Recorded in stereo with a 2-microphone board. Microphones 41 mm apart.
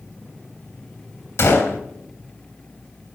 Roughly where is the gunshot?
Left.